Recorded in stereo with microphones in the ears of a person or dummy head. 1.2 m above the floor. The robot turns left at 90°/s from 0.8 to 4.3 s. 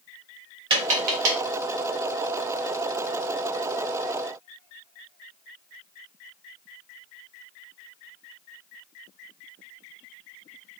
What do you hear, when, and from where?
0.7 s tapping: 25° right (ahead or behind), 0.9 m; by 1.4 s 70° right (ahead or behind), 0.9 m